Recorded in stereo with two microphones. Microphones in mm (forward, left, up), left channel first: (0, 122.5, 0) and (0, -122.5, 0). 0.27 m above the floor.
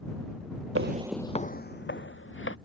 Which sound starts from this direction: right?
Footsteps, at 0.8 s.